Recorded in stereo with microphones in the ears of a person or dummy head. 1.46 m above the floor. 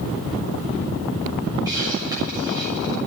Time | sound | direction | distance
1.6 | a hiss | 20° right (ahead or behind) | 7 m